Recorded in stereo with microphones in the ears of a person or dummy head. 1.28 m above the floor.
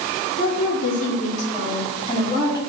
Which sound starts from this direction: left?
A woman speaking, at 0.4 s.